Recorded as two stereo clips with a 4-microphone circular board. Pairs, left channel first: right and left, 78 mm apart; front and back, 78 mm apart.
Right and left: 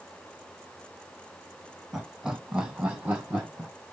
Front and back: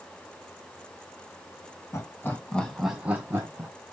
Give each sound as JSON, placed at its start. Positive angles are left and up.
{"t": 1.9, "sound": "laughter", "azimuth_deg": 10, "distance_m": 1.7}